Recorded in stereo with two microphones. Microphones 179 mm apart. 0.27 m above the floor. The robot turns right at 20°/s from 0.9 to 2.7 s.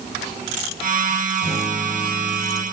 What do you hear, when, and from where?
1.4 s a guitar: 35° left (ahead or behind), 6 m; by 2.6 s 60° left (ahead or behind), 6 m